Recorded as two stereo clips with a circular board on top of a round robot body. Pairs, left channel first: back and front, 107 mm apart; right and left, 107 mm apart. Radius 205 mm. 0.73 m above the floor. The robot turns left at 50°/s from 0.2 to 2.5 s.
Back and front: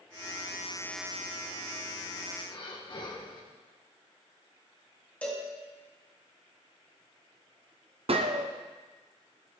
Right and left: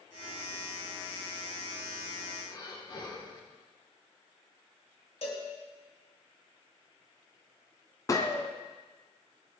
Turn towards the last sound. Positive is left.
turn(degrees=-30)